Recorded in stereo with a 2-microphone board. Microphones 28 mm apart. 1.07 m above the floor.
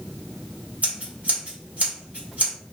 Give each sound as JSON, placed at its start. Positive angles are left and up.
{"t": 0.8, "sound": "scissors", "side_deg": -55, "distance_m": 1.9}